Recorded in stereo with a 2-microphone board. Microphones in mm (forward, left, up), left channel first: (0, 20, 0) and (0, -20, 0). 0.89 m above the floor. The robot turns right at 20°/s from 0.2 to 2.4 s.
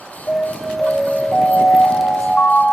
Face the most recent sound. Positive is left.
turn(degrees=80)